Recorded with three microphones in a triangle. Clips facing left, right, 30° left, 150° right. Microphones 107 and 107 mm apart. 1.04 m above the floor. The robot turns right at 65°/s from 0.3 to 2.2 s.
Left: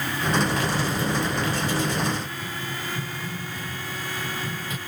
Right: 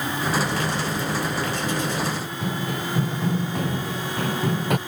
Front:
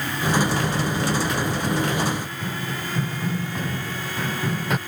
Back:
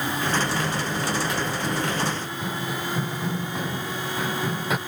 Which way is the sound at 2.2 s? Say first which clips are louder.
Right 5 dB, even; 75° right.